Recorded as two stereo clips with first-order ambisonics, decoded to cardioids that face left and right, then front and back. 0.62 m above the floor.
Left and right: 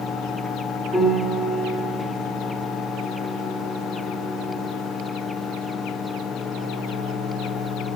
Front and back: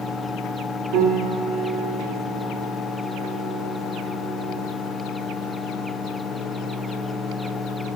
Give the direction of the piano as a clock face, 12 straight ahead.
6 o'clock.